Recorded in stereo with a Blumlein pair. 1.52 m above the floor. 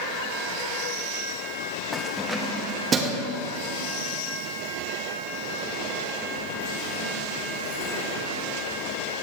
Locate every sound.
1.9 s keys jangling: 10° left, 1.5 m; by 9.2 s 75° right, 7 m